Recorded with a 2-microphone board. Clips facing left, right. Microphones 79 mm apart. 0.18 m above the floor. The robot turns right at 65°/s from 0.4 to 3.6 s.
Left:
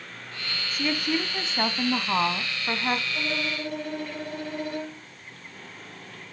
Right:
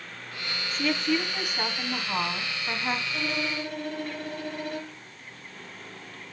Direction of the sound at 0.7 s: 5° left (ahead or behind).